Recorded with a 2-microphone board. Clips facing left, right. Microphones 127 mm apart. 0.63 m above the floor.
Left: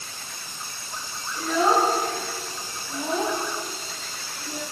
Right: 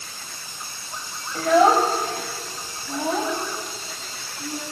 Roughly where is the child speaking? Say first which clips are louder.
Right 5 dB; right.